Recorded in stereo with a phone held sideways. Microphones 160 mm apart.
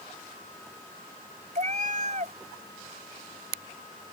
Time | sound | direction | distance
1.6 | a cat meowing | 50° right (ahead or behind) | ?